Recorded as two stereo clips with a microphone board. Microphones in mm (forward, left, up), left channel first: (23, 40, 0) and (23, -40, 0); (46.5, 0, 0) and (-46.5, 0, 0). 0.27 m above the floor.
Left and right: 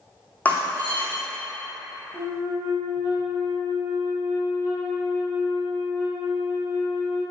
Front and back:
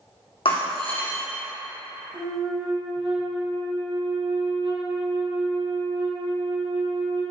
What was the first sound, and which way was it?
Breaking glass, 20° left.